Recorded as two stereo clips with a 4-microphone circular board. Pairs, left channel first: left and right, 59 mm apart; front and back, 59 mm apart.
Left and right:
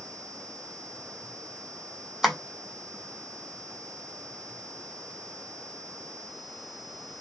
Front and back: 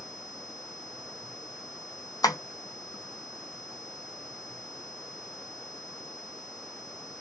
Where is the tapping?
5° right, 0.9 m.